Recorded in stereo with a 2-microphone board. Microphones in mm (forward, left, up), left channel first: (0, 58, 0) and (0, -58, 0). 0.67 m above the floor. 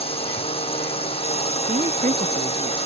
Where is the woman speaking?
85° right.